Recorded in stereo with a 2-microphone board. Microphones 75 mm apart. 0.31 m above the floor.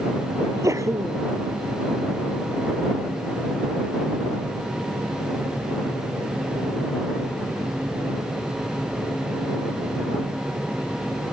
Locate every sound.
0.4 s a sneeze: 45° right (ahead or behind)